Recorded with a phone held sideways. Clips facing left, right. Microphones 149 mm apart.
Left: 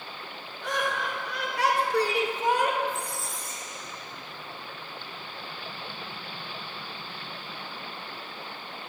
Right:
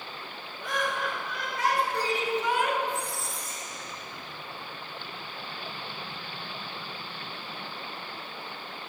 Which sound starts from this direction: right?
A squeak, at 2.9 s.